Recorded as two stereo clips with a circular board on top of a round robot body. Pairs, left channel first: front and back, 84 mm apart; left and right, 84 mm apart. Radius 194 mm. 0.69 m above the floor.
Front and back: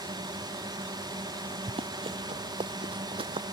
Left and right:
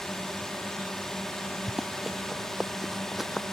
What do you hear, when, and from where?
0.0 s a drone: 175° left
1.7 s running footsteps: 175° right; by 3.4 s straight behind